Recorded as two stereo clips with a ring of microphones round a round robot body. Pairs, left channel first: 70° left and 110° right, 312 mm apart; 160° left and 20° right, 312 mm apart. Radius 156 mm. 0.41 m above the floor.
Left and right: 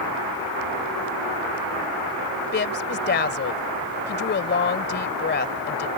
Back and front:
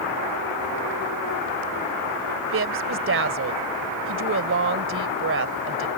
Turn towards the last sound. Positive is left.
turn(degrees=15)